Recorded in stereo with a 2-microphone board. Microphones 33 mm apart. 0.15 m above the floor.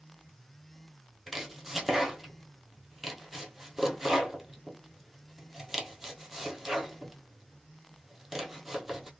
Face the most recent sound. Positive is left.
turn(degrees=-5)  # may be behind; listen again after turning